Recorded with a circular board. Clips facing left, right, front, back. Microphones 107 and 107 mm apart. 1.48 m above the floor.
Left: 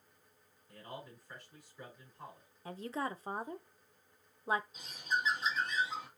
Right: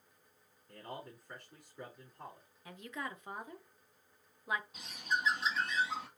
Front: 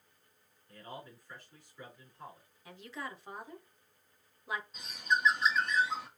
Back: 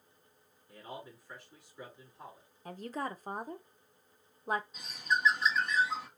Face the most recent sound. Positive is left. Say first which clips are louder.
# even, front 1 dB
turn(degrees=-95)